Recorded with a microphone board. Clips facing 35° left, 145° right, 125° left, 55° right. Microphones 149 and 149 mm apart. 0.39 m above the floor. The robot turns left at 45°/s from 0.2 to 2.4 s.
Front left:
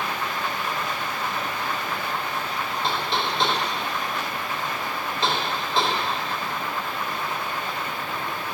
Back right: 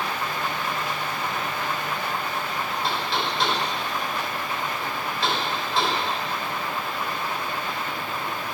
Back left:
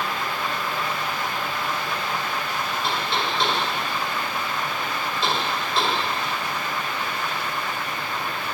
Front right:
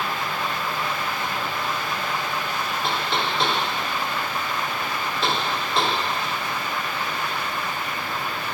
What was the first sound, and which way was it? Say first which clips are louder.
Knocking: front left 2 dB, front right 1 dB; 30° right.